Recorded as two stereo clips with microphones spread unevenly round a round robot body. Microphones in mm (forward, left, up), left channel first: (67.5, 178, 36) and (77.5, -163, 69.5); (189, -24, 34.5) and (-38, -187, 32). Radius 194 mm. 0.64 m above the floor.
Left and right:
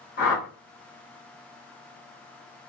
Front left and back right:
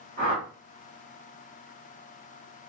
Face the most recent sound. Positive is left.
turn(degrees=150)